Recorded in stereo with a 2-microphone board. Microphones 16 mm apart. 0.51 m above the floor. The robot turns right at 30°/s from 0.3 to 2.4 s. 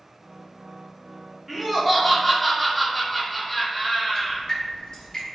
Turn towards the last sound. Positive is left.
turn(degrees=50)  # may be behind; listen again after turning